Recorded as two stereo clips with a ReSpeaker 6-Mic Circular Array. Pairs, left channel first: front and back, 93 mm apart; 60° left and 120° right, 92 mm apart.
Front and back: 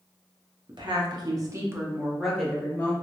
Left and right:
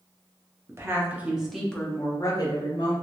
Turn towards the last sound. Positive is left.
turn(degrees=65)